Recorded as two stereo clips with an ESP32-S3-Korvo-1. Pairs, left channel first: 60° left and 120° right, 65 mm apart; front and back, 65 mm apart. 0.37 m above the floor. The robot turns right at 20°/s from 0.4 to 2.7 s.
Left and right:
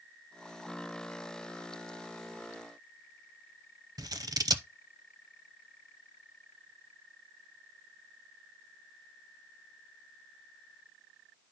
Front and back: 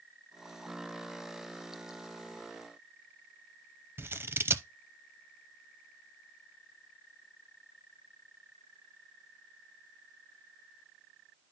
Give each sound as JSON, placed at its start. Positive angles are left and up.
{"t": 4.0, "sound": "scissors", "azimuth_deg": -130, "distance_m": 0.6}